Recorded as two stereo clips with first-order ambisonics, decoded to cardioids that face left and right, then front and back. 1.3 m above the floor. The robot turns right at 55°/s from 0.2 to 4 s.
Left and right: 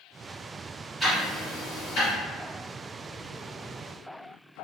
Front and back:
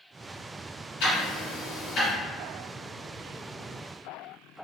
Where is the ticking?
5° right, 1.7 m; by 2.1 s 55° left, 1.7 m.